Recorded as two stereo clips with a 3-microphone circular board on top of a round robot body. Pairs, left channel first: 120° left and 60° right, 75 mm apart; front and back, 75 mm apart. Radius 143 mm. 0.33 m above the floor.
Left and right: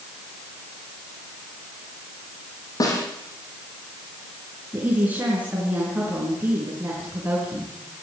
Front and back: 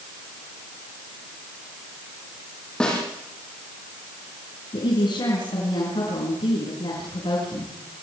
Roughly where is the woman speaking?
Ahead.